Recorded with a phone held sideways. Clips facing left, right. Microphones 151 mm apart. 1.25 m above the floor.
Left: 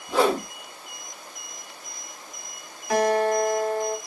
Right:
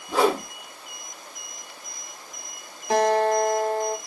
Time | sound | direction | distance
0.1 | a whoosh | 5° right (ahead or behind) | 0.8 m
2.9 | a guitar | 30° right (ahead or behind) | 1.0 m